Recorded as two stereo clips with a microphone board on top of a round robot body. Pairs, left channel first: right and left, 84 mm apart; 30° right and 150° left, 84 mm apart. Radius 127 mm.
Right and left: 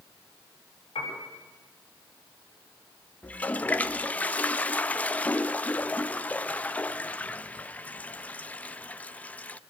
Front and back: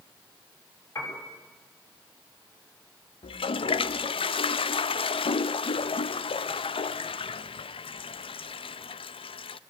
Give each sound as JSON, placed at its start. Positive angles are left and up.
{"t": 0.9, "sound": "a piano", "azimuth_deg": -90, "distance_m": 8.0}
{"t": 3.2, "sound": "a toilet flushing", "azimuth_deg": -20, "distance_m": 0.6}